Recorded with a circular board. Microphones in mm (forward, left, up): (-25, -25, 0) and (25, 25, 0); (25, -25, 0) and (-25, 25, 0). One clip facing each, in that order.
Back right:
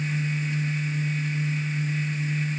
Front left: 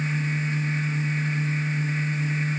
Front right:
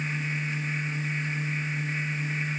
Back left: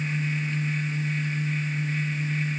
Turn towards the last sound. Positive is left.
No sound to turn to.